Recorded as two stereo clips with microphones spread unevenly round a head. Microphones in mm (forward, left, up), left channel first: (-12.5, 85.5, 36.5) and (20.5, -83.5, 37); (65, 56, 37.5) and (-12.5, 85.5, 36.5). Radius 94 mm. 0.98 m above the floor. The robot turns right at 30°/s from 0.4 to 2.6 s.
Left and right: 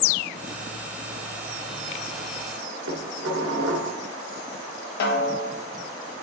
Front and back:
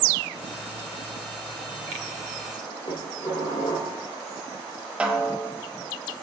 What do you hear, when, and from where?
2.9 s dishes clattering: 75° right, 1.5 m
5.0 s a snare drum: 80° left, 0.9 m